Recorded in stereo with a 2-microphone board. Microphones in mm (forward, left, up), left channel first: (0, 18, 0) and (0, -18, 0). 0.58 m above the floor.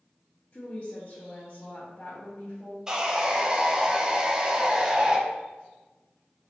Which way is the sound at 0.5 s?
40° left (ahead or behind).